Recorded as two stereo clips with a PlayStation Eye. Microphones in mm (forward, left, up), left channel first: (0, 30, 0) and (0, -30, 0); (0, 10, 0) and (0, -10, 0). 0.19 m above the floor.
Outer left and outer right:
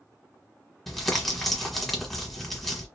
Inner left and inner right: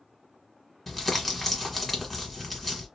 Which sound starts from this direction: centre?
Crumpling, at 0.9 s.